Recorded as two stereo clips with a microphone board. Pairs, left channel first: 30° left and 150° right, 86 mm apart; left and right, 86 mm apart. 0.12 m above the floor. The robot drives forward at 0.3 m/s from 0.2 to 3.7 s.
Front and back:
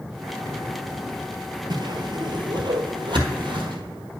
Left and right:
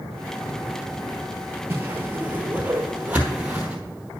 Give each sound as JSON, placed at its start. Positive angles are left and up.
{"t": 1.7, "sound": "a whoosh", "azimuth_deg": -150, "distance_m": 0.8}